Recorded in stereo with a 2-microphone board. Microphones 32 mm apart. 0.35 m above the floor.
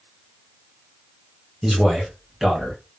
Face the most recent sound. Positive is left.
turn(degrees=-10)  # may be behind; listen again after turning